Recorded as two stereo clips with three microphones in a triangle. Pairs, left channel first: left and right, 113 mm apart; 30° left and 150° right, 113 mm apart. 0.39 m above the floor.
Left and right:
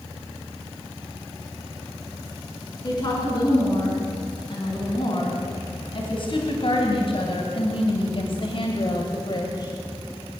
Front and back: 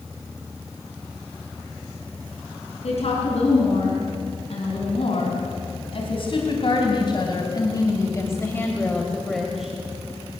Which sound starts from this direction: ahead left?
A woman speaking, at 2.8 s.